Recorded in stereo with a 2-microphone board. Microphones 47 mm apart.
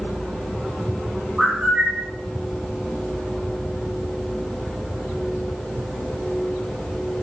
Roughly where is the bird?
Centre.